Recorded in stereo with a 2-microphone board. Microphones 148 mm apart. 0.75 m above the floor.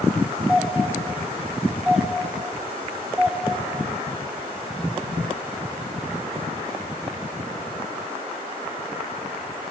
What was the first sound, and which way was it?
A doorbell, 5° right (ahead or behind).